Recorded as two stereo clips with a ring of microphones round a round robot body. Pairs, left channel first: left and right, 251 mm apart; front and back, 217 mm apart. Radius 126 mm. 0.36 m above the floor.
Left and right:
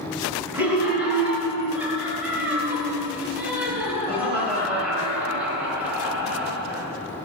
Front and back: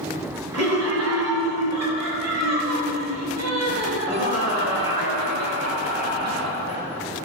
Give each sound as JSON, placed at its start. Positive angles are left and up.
{"t": 0.5, "sound": "laughter", "azimuth_deg": -175, "distance_m": 6.5}